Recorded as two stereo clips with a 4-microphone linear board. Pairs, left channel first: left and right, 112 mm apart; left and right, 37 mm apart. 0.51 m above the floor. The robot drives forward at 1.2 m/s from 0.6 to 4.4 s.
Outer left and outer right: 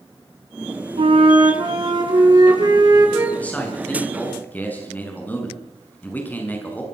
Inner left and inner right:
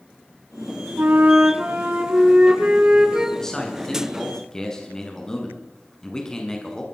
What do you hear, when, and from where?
1.0 s a flute: 55° right (ahead or behind), 3 m; by 3.3 s 30° right (ahead or behind), 5 m
3.4 s a man speaking: 15° left (ahead or behind), 7.5 m